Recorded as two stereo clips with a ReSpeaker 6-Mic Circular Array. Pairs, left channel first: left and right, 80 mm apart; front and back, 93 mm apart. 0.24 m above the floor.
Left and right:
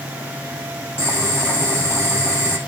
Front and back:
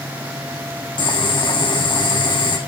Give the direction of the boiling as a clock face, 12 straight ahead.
11 o'clock.